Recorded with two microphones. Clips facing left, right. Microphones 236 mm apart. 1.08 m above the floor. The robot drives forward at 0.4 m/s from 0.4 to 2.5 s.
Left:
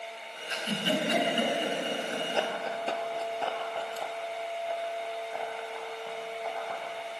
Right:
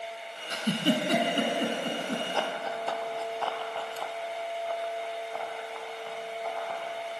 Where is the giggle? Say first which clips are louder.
Right 5 dB; 45° right (ahead or behind), 3.5 m; by 2.2 s 55° right (ahead or behind), 3 m.